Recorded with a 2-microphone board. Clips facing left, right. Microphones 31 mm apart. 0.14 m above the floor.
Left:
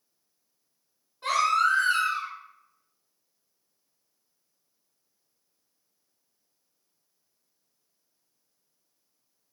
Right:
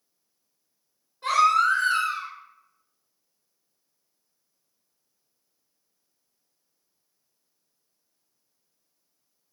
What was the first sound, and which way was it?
A baby crying, 5° left (ahead or behind).